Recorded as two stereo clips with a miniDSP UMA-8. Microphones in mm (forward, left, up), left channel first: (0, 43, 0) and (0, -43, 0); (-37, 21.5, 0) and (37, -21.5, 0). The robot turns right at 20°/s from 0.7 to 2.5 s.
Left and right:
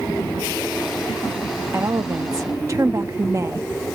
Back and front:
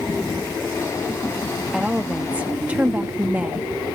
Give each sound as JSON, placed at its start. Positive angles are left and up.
{"t": 1.7, "sound": "a woman speaking", "azimuth_deg": -110}